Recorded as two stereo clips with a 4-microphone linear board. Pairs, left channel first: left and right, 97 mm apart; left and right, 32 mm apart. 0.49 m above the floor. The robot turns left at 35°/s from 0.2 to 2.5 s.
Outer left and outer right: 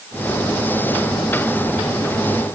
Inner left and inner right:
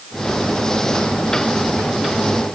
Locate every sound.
Only background noise.